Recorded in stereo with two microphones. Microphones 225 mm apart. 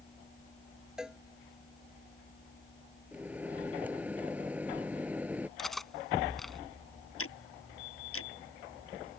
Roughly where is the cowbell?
Centre.